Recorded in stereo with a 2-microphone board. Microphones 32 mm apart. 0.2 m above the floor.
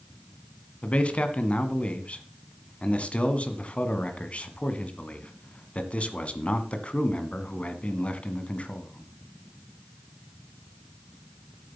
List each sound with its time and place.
0.8 s a man speaking: 45° left (ahead or behind), 1.6 m